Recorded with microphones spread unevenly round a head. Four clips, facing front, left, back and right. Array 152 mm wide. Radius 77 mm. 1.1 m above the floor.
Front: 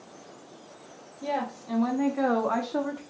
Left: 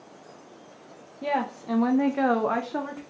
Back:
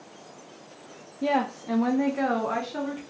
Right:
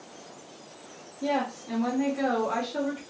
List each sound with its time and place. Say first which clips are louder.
1.2 s a woman speaking: left 1 dB, back 5 dB; 155° left, 0.6 m; by 3.0 s 50° left, 0.9 m